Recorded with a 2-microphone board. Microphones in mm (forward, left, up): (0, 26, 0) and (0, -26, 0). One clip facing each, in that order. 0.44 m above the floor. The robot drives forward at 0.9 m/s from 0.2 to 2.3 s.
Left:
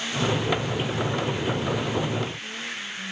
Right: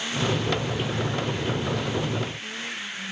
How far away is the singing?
I don't hear singing.